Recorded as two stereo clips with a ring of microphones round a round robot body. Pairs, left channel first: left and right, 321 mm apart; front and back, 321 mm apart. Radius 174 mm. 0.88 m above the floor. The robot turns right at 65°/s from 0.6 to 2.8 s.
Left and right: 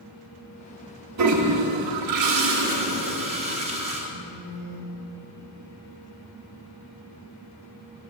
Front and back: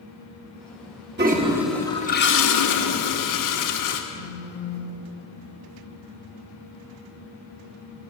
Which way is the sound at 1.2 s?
125° right.